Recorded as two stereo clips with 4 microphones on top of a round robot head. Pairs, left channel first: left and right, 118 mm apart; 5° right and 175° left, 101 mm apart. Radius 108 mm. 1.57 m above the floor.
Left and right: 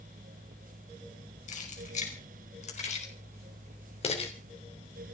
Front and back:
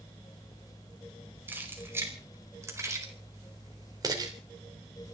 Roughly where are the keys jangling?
Left.